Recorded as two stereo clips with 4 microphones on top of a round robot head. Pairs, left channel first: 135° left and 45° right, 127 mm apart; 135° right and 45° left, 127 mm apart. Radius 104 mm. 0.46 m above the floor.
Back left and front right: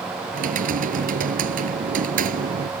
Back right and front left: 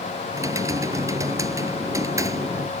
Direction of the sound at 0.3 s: 25° right.